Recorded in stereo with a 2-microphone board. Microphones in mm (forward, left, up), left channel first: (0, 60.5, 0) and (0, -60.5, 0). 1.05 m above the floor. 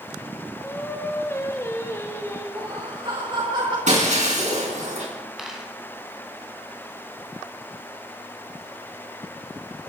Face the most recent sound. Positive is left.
turn(degrees=-5)  # may be behind; listen again after turning